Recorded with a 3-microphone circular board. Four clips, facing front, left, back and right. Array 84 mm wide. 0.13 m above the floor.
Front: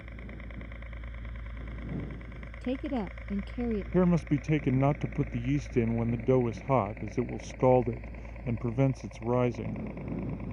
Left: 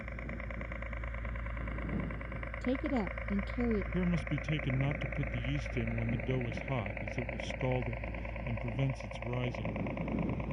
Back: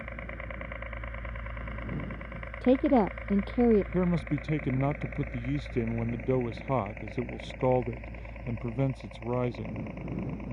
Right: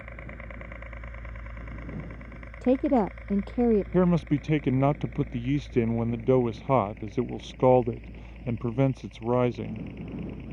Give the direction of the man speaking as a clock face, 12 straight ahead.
3 o'clock.